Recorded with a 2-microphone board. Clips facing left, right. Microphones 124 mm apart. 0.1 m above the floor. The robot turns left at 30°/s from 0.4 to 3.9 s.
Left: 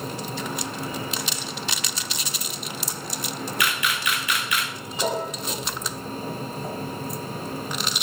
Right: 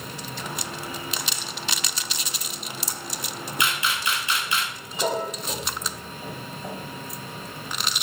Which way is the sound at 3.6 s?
25° right (ahead or behind).